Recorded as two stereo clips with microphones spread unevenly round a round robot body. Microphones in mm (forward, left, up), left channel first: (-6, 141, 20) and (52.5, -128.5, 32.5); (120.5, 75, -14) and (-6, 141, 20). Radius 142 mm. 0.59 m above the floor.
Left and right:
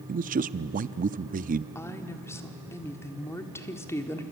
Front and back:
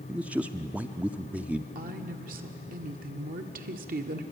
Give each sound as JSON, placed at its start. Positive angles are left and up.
{"t": 0.1, "sound": "a man speaking", "azimuth_deg": -110, "distance_m": 0.6}
{"t": 1.8, "sound": "a woman speaking", "azimuth_deg": 180, "distance_m": 1.4}